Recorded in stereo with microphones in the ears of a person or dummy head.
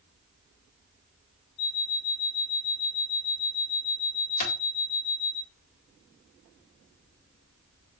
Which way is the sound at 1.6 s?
60° left (ahead or behind).